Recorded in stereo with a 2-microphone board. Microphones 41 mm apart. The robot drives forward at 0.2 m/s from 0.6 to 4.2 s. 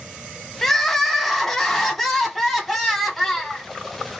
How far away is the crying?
About 0.8 m.